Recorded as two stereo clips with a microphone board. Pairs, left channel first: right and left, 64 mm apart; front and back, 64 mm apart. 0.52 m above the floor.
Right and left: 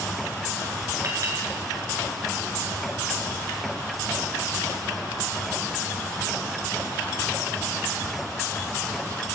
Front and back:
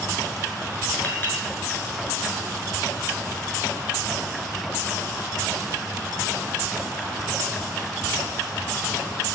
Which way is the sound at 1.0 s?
60° left.